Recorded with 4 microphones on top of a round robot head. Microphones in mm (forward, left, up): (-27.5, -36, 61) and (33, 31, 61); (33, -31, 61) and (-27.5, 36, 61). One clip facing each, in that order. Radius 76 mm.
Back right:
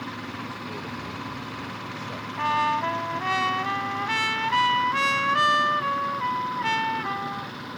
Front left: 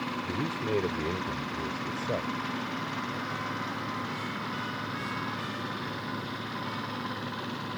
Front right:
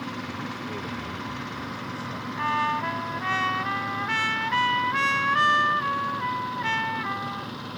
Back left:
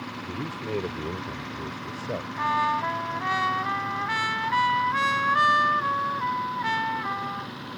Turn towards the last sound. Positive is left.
turn(degrees=-150)